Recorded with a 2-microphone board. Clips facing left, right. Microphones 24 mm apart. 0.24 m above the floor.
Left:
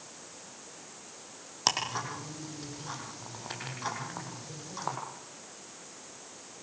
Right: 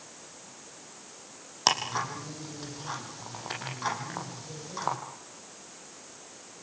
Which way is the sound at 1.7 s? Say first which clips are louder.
Right 3 dB; 10° right (ahead or behind).